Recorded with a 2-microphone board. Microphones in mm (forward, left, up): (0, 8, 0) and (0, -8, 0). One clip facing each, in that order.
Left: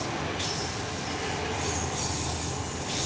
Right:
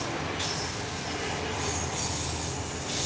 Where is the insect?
25° left (ahead or behind), 4 m.